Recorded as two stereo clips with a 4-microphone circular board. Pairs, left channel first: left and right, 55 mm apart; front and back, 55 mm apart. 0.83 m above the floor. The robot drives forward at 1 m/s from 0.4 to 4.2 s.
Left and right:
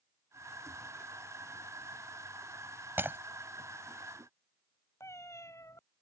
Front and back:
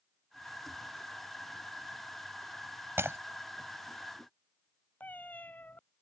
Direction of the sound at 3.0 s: 135° right.